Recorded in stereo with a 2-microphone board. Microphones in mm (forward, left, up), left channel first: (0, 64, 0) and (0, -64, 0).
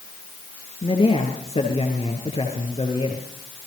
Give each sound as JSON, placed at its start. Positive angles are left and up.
{"t": 0.8, "sound": "a man speaking", "side_deg": 50, "distance_m": 4.5}